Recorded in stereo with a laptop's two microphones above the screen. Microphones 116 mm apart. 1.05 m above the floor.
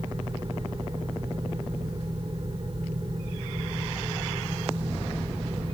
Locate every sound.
0.0 s a fan: 45° right (ahead or behind), 2.0 m